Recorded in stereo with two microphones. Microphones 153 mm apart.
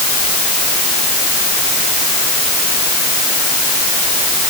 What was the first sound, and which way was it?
Only background noise.